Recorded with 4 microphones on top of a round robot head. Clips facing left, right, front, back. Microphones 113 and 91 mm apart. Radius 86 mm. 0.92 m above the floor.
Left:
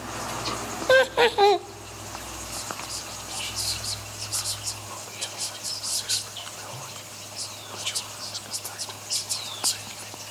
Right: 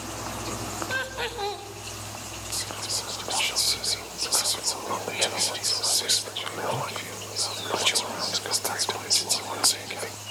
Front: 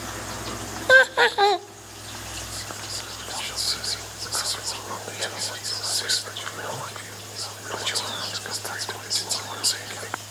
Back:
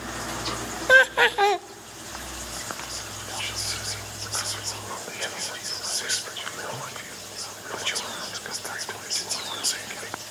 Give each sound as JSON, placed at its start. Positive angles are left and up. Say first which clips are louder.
{"t": 0.9, "sound": "laughter", "louder": "left 14 dB, front 1 dB", "azimuth_deg": 75, "distance_m": 0.6}
{"t": 2.5, "sound": "whispering", "louder": "right 1 dB, back 1 dB", "azimuth_deg": -85, "distance_m": 0.7}